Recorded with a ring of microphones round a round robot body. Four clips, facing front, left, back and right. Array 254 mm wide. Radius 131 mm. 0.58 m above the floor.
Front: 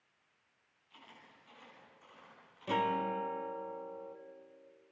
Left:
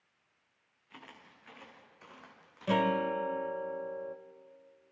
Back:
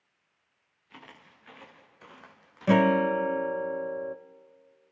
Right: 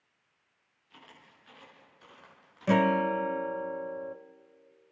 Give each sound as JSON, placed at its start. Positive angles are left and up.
{"t": 0.9, "sound": "footsteps", "azimuth_deg": 160, "distance_m": 5.0}
{"t": 2.7, "sound": "a guitar", "azimuth_deg": -160, "distance_m": 0.7}